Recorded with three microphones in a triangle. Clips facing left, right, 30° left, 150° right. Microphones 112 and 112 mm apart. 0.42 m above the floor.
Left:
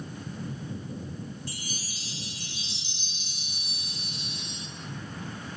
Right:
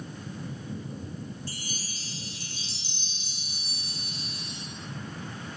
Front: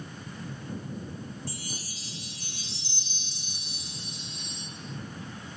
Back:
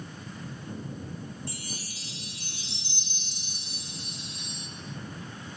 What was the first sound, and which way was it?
A chime, 140° right.